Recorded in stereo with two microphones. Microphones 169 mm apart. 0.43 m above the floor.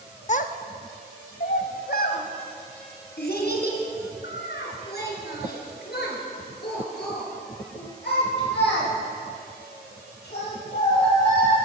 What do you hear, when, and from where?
0.3 s a child speaking: 45° left (ahead or behind), 0.6 m; by 11.6 s 80° left, 7.5 m